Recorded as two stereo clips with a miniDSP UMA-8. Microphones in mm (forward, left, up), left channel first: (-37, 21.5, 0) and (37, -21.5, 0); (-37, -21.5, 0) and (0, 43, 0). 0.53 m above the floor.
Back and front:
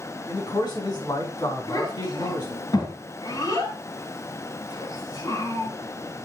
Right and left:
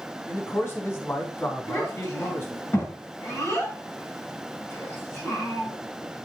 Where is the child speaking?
170° right, 6.5 m.